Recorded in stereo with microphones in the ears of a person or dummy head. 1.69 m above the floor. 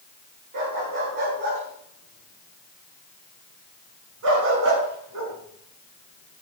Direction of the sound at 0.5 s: 50° right (ahead or behind).